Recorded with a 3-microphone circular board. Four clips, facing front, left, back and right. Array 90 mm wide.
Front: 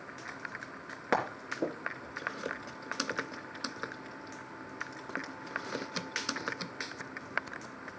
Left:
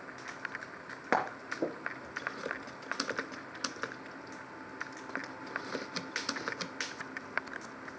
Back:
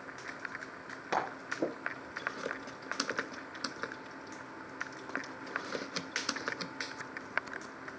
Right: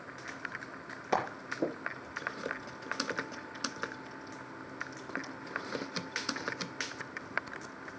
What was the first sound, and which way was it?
Frying, 60° left.